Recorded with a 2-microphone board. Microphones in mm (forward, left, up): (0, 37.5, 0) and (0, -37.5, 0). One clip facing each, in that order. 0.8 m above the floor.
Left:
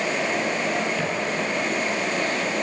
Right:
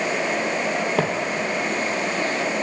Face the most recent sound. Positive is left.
turn(degrees=-30)  # may be behind; listen again after turning